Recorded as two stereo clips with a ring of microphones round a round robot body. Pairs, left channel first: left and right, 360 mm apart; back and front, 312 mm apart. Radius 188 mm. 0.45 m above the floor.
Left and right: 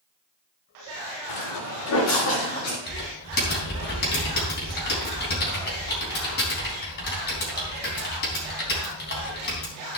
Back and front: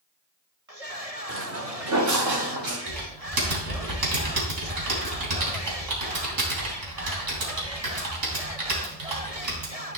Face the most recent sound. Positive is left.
turn(degrees=25)